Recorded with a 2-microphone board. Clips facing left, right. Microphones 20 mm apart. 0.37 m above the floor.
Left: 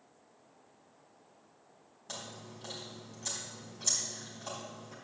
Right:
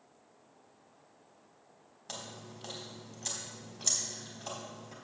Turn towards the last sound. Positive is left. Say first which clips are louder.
# even
turn(degrees=-25)  # may be behind; listen again after turning